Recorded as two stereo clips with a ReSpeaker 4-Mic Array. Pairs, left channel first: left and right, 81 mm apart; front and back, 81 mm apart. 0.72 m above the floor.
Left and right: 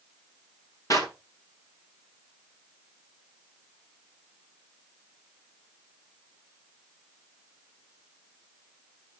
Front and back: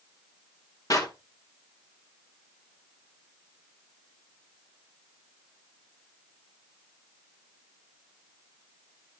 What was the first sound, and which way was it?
A clap, 45° left.